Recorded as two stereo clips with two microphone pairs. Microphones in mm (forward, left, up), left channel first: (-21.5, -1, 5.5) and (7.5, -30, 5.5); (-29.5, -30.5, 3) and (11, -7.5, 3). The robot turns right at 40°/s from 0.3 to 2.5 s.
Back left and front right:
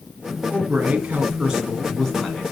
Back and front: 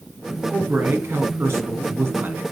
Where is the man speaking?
15° right, 4 m; by 2.4 s 65° left, 4 m.